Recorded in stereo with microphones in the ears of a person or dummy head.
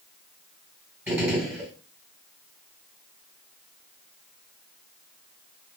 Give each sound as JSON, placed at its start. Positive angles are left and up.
{"t": 1.1, "sound": "a gunshot", "side_deg": -10, "distance_m": 1.9}